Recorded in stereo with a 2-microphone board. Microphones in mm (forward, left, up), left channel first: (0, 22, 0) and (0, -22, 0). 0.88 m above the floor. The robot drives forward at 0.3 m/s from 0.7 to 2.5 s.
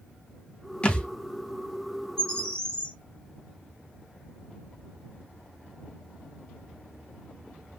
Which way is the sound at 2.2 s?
15° left (ahead or behind).